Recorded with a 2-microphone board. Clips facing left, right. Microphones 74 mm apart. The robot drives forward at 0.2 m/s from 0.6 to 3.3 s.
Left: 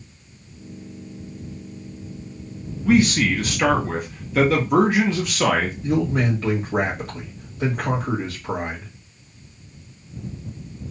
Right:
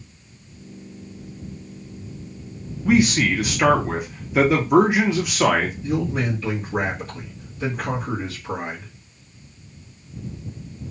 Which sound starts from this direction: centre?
A man speaking, at 2.9 s.